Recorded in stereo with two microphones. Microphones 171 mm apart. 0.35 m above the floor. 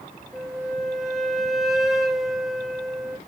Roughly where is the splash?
No splash in this recording.